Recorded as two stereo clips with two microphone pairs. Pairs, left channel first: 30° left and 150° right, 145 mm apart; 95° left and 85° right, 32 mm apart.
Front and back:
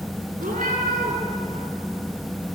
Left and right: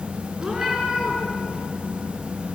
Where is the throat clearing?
I don't hear throat clearing.